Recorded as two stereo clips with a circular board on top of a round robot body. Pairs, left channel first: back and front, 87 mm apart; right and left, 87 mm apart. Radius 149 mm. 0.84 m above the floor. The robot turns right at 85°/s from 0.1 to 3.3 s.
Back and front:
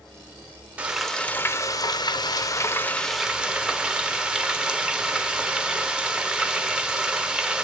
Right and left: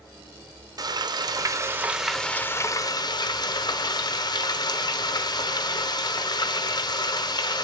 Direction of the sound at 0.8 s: 70° left.